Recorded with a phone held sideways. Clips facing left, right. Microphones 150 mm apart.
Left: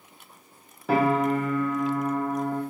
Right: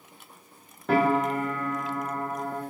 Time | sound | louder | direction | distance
0.9 | a piano | left 1 dB | 5° left (ahead or behind) | 0.6 m